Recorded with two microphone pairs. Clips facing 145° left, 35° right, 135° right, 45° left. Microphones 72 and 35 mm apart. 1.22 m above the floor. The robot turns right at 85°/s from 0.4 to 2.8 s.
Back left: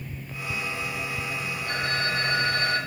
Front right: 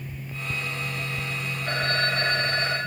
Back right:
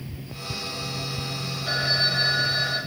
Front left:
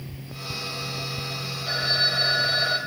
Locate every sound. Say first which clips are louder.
1.7 s a phone ringing: front right 3 dB, even; 70° right, 4 m; by 2.8 s 25° left, 4 m